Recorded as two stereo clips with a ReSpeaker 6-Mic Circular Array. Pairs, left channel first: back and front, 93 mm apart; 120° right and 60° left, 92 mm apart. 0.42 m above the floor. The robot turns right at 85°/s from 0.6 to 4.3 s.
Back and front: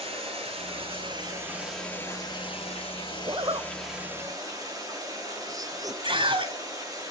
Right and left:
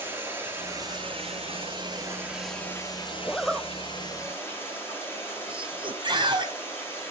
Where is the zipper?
45° right, 0.8 m; by 5.9 s 45° left, 0.8 m.